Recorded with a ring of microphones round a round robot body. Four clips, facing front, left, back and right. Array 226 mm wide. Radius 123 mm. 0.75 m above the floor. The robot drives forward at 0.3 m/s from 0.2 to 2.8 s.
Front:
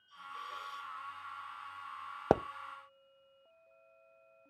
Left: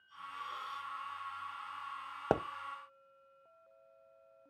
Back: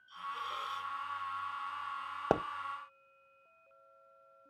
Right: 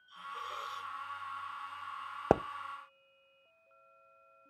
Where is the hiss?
105° right, 1.1 m; by 0.9 s 115° right, 1.2 m.